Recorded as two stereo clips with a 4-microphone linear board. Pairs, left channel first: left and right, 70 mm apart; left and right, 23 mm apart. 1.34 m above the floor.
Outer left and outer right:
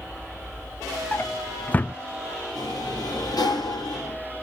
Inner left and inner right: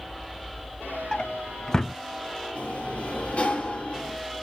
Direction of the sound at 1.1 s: 25° left (ahead or behind).